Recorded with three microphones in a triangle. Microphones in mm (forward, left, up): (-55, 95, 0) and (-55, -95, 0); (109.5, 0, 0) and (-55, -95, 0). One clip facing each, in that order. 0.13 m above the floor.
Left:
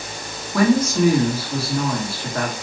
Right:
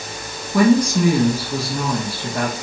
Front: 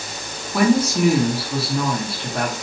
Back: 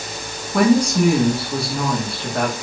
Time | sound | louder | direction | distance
0.5 | a woman speaking | right 2 dB, back 2 dB | 50° right | 1.1 m